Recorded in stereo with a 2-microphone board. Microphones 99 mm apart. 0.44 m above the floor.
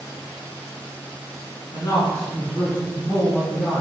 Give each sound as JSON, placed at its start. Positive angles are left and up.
{"t": 1.7, "sound": "a man speaking", "side_deg": 40, "distance_m": 3.0}